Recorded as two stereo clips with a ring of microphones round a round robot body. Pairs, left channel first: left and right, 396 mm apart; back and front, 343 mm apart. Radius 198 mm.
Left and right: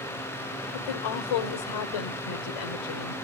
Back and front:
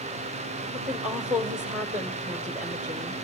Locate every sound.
0.7 s a woman speaking: 90° left, 1.8 m